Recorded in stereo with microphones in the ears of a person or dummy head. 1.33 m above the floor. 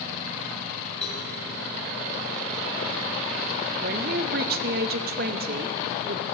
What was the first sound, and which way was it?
A cowbell, 5° left (ahead or behind).